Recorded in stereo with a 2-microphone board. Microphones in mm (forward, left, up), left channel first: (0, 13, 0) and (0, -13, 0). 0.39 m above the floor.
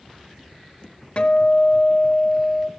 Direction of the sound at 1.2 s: 50° left (ahead or behind).